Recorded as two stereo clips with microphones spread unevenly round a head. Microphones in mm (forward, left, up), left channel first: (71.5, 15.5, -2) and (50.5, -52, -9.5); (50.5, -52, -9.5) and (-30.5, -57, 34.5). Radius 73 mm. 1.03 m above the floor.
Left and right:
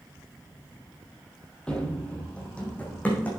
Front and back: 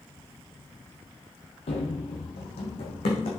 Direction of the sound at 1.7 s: Straight ahead.